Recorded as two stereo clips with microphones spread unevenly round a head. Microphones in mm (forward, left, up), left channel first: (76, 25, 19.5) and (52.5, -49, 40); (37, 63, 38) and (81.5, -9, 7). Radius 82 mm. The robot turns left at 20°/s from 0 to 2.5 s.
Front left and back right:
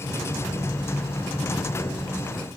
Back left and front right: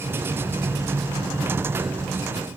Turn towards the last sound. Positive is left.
No sound to turn to.